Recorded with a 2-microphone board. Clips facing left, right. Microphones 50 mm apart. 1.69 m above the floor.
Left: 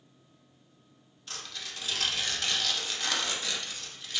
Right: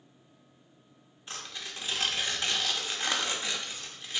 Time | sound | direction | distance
1.3 | tearing paper | 20° right (ahead or behind) | 0.7 m